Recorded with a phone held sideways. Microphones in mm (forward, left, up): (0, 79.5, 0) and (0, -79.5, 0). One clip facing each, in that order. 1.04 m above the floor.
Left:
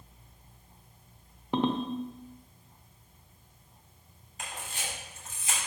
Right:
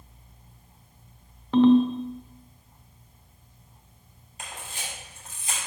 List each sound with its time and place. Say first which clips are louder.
1.5 s a ringtone: right 12 dB; 15° left (ahead or behind), 0.8 m
4.4 s a camera shutter: even; 35° right (ahead or behind), 3 m